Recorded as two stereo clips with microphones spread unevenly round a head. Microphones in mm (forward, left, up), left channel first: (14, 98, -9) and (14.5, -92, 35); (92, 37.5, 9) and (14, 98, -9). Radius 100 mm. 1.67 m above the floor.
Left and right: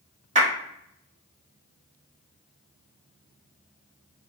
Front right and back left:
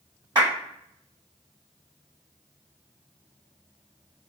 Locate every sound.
0.3 s a clap: 140° right, 1.5 m